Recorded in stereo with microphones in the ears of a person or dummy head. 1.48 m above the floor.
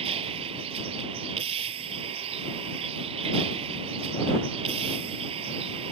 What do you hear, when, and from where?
0.0 s a vehicle: 35° right (ahead or behind)